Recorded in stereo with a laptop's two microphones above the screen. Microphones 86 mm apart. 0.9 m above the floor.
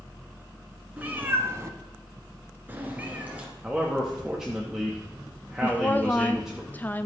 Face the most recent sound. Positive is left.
turn(degrees=20)  # may be behind; listen again after turning